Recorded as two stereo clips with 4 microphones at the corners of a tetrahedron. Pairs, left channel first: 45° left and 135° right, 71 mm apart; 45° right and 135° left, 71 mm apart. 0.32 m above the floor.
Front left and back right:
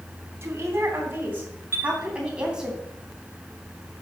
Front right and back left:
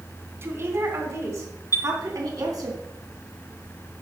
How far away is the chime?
About 1.1 m.